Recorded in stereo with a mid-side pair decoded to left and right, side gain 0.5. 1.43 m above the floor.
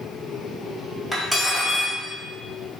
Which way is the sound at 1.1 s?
10° right.